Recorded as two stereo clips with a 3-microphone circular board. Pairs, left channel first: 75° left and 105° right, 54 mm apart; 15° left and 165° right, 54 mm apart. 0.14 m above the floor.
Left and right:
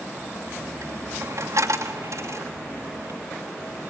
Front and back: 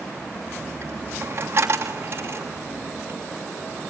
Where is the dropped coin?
120° right, 3 m.